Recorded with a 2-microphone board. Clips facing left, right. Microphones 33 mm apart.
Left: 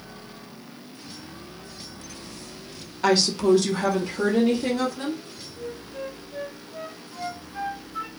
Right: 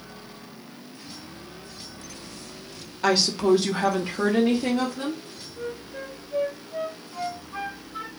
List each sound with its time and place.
3.0 s a woman speaking: centre (ahead or behind), 0.6 m; by 5.2 s 30° right (ahead or behind), 1.1 m
5.6 s a flute: 50° right (ahead or behind), 0.8 m